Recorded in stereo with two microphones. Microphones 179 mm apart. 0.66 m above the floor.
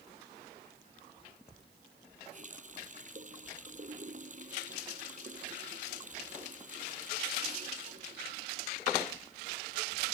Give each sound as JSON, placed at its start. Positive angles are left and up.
{"t": 2.3, "sound": "a running tap", "side_deg": -45}